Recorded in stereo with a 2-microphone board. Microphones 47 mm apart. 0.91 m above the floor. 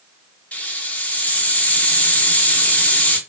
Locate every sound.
0.5 s a hiss: 35° left (ahead or behind), 0.9 m